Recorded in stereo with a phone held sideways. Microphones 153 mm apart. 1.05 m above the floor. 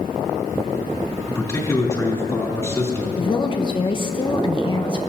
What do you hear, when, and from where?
1.3 s a man speaking: 20° left (ahead or behind), 3 m
3.2 s a woman speaking: 35° left (ahead or behind), 0.9 m